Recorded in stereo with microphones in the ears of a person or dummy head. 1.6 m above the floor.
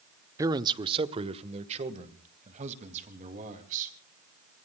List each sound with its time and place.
0.4 s a man speaking: 15° right (ahead or behind), 0.8 m; by 4.0 s 40° right (ahead or behind), 3.5 m